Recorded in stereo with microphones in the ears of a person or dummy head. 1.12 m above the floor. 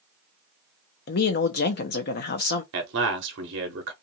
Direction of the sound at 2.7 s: 55° right (ahead or behind).